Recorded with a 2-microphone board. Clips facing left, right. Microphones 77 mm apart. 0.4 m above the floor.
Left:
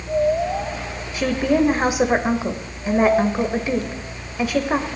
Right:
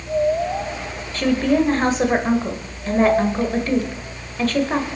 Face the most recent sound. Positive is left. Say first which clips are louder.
# right 1 dB
turn(degrees=10)  # may be behind; listen again after turning